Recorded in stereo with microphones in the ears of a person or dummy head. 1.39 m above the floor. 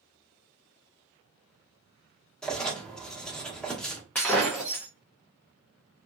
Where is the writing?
Centre (ahead or behind), 0.9 m.